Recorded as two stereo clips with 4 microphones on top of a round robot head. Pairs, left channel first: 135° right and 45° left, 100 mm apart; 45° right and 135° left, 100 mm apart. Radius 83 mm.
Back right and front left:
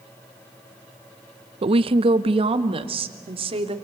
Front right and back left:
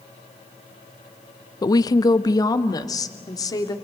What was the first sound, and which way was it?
A woman speaking, 10° left.